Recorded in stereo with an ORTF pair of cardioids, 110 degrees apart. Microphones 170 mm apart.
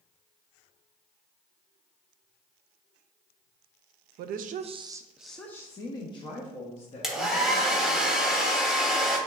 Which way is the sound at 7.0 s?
5° right.